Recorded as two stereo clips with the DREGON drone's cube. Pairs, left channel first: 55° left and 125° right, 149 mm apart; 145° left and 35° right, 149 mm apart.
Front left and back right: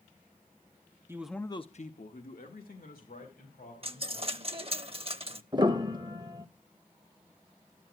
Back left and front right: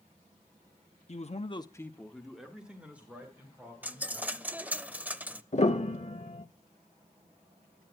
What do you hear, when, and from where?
1.1 s a man speaking: 170° left, 0.8 m; by 4.6 s 40° left, 4.5 m
3.8 s a dropped coin: 110° right, 0.5 m
5.5 s a piano: straight behind, 0.7 m